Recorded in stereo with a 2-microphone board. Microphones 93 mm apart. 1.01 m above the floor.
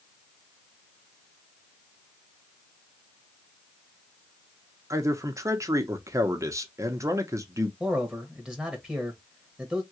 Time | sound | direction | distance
4.9 | a man speaking | 35° right (ahead or behind) | 0.8 m
7.8 | a man speaking | 10° right (ahead or behind) | 1.2 m